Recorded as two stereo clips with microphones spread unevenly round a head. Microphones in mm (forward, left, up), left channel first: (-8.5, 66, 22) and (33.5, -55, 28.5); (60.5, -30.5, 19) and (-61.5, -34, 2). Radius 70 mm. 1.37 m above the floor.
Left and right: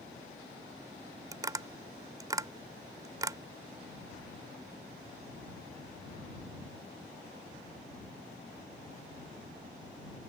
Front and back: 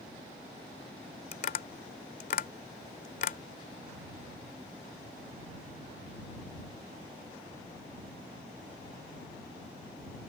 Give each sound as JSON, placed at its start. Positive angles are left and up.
{"t": 1.3, "sound": "tapping", "azimuth_deg": -5}